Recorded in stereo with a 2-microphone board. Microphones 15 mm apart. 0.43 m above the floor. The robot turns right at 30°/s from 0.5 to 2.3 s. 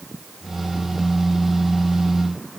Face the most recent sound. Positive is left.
No sound to turn to.